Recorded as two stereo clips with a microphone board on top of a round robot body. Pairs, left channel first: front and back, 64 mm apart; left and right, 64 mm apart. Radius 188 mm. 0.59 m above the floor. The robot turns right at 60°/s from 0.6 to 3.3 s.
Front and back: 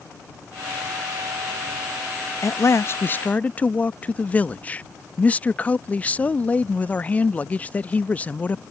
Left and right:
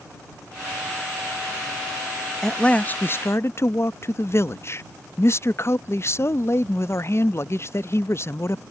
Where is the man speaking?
5° left; by 8.6 s 60° left.